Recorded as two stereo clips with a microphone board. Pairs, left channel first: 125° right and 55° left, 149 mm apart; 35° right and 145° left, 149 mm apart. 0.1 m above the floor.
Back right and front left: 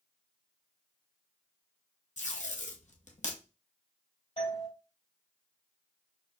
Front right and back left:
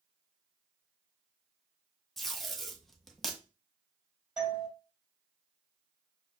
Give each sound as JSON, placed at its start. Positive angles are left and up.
{"t": 2.2, "sound": "tape being pulled", "azimuth_deg": -125, "distance_m": 0.8}
{"t": 4.4, "sound": "a doorbell", "azimuth_deg": -130, "distance_m": 2.5}